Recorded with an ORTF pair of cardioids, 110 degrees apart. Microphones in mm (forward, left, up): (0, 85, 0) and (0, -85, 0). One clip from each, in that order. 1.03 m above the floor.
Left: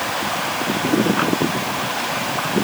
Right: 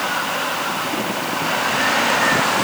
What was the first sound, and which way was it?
Only background noise.